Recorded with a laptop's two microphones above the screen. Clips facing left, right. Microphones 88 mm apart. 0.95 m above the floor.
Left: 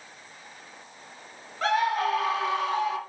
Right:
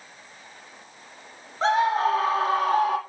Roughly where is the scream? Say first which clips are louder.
Right 3 dB; right.